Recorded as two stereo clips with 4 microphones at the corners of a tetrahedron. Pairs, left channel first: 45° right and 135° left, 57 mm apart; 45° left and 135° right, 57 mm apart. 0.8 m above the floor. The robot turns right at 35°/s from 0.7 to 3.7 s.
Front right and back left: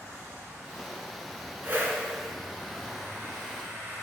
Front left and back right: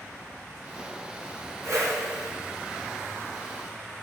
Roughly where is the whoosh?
Behind.